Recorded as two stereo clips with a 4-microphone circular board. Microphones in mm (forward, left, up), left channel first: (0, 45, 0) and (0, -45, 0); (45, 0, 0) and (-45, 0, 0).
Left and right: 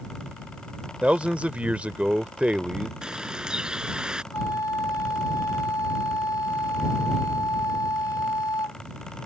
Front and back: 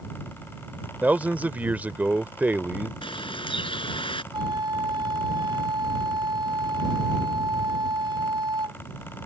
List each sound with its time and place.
1.0 s a man speaking: 145° right
3.0 s a bird: 10° right
4.3 s a flute: 140° left